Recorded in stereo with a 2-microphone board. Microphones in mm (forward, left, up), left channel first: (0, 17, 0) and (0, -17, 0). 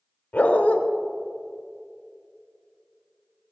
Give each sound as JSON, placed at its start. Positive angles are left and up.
{"t": 0.3, "sound": "a dog barking", "side_deg": 60, "distance_m": 0.9}